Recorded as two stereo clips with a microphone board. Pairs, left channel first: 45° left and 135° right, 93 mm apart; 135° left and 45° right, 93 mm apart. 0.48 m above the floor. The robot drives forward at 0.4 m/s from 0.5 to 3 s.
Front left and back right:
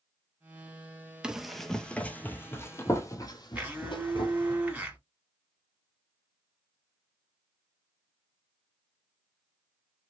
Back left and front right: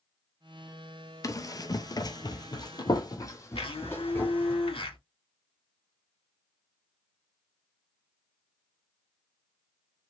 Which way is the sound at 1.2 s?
150° left.